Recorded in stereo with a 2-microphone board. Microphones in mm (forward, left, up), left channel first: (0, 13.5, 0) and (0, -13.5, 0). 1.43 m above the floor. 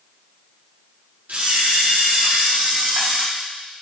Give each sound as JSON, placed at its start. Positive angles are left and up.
{"t": 1.3, "sound": "a camera shutter", "side_deg": -75, "distance_m": 2.5}